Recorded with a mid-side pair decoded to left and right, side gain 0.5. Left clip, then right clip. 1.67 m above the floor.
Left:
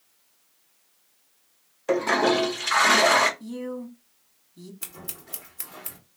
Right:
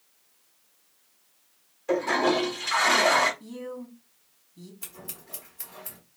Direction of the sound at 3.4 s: 25° left.